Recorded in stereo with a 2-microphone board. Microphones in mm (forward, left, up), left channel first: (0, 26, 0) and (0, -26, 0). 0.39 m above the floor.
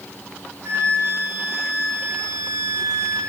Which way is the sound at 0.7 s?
55° right (ahead or behind).